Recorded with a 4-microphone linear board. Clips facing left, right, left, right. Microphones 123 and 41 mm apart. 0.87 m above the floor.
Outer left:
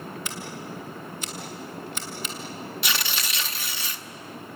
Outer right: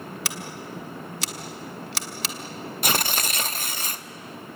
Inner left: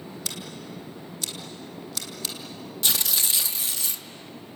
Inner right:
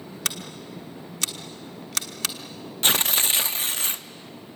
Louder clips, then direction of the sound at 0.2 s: Even, inner right 6 dB; 85° right.